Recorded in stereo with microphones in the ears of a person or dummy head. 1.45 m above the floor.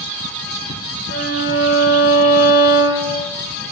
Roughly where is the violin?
Right.